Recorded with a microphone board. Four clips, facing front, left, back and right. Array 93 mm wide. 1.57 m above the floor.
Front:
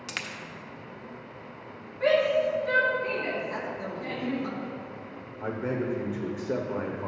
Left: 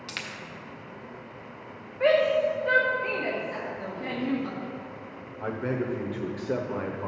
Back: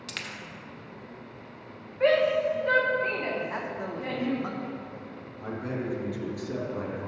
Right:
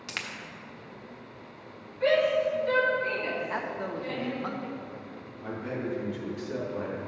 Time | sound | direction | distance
0.1 | a dropped coin | 35° right | 1.0 m
2.0 | a shout | 130° left | 1.7 m
3.5 | a man speaking | 120° right | 0.9 m
5.4 | a man speaking | 60° left | 1.0 m